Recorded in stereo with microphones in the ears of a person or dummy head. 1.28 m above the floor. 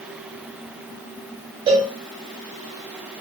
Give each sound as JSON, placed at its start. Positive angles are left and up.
{"t": 1.7, "sound": "a cowbell", "side_deg": -25, "distance_m": 3.5}